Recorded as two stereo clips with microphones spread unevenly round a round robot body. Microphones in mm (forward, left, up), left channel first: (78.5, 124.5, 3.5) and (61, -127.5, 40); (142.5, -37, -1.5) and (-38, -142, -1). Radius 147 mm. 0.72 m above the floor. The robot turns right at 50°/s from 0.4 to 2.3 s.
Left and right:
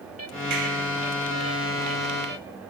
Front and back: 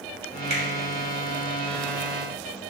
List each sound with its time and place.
0.5 s a finger snap: 115° right, 1.8 m; by 0.6 s 110° right, 1.8 m